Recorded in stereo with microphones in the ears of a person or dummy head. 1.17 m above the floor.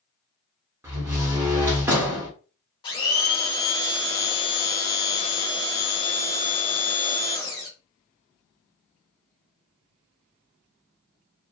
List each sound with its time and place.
0.8 s a door slam: 10° right (ahead or behind), 0.8 m
2.8 s a blender: 25° left (ahead or behind), 0.8 m